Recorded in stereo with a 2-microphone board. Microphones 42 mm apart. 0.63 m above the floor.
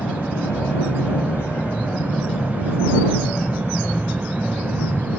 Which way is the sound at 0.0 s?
70° left (ahead or behind).